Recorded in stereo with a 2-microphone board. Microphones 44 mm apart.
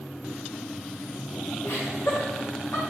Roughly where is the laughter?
Left.